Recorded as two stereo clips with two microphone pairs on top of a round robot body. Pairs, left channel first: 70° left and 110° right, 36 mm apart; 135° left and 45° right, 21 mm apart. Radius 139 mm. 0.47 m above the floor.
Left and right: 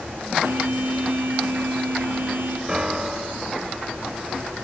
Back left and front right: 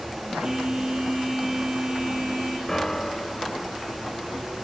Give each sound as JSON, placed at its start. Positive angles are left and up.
{"t": 0.4, "sound": "a phone buzzing", "azimuth_deg": -105, "distance_m": 6.5}
{"t": 2.7, "sound": "a piano", "azimuth_deg": -165, "distance_m": 1.5}